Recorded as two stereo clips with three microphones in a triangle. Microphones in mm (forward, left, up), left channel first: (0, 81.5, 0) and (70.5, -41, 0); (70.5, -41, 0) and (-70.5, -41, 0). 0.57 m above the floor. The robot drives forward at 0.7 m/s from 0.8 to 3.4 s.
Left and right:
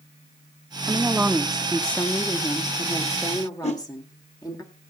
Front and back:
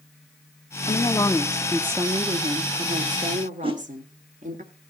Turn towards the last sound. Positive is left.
turn(degrees=140)